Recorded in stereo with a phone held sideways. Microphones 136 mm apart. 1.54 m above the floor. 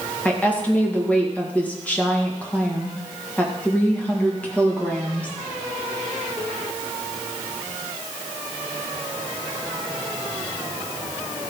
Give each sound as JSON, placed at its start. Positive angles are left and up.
{"t": 0.2, "sound": "a woman speaking", "side_deg": 10, "distance_m": 2.0}